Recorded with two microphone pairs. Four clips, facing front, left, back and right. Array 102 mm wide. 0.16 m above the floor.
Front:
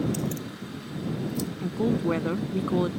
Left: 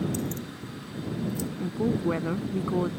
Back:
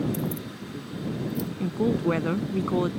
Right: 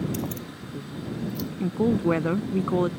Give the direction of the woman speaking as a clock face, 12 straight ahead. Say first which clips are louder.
Right 4 dB, back 1 dB; 4 o'clock.